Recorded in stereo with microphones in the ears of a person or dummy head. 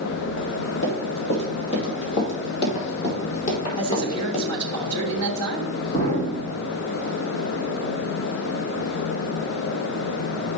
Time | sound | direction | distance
0.8 | running footsteps | 60° left (ahead or behind) | 3 m
3.8 | a man speaking | 30° left (ahead or behind) | 3 m
5.9 | an explosion | 40° left (ahead or behind) | 1.9 m